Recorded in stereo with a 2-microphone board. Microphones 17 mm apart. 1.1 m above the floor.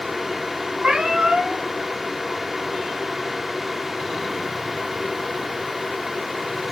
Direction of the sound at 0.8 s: 75° right (ahead or behind).